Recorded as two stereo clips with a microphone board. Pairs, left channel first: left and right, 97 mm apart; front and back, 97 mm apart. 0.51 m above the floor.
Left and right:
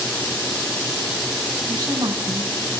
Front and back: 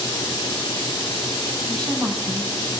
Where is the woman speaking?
135° right, 3.5 m.